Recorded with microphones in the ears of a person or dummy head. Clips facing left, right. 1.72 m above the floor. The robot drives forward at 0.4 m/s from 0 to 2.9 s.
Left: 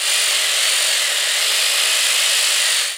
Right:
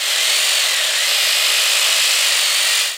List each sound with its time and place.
Only background noise.